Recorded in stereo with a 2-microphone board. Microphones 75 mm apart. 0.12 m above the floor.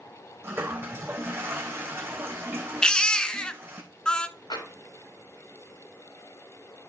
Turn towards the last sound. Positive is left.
turn(degrees=80)